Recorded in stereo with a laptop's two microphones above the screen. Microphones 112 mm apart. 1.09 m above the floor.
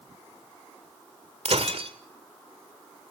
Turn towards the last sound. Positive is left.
turn(degrees=-70)  # may be behind; listen again after turning